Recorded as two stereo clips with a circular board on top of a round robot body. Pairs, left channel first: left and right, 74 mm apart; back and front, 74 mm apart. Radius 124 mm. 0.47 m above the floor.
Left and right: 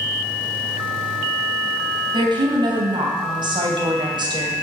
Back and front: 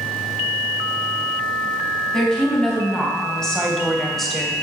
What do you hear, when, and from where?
2.1 s a woman speaking: 100° right, 4 m; by 4.5 s 90° right, 2 m